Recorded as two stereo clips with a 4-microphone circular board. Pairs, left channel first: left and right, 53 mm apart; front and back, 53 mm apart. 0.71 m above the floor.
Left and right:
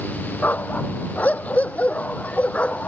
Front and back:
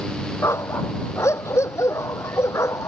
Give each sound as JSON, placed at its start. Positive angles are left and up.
{"t": 0.4, "sound": "a dog barking", "azimuth_deg": 30}